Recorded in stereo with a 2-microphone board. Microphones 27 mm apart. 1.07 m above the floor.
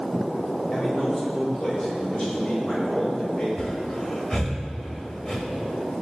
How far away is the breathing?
About 1.1 m.